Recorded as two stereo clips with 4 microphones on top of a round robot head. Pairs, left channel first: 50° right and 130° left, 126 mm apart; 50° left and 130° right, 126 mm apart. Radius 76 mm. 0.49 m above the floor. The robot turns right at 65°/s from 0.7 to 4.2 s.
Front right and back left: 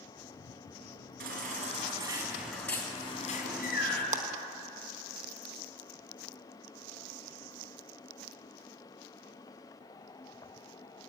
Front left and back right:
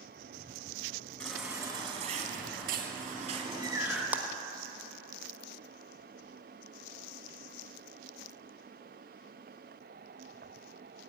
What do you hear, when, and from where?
1.2 s a baby crying: 130° left, 3.5 m; by 4.0 s 45° right, 3.5 m
4.1 s a clap: 155° left, 1.2 m; by 4.2 s 160° left, 1.2 m